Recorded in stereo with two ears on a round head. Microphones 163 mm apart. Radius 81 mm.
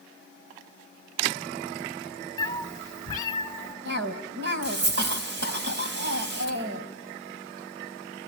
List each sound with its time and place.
2.4 s a cat meowing: 20° left (ahead or behind), 1.2 m; by 3.8 s 15° left (ahead or behind), 2.5 m
3.9 s a cough: 60° right (ahead or behind), 4.5 m